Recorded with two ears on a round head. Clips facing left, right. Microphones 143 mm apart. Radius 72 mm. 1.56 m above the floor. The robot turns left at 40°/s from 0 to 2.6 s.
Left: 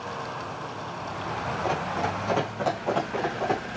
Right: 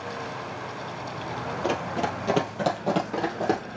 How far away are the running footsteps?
About 1.9 m.